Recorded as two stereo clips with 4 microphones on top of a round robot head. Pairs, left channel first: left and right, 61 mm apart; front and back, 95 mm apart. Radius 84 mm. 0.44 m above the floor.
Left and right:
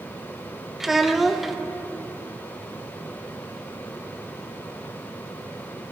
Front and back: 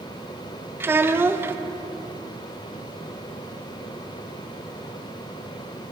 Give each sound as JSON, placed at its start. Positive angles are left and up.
{"t": 0.8, "sound": "a child speaking", "azimuth_deg": -170, "distance_m": 0.9}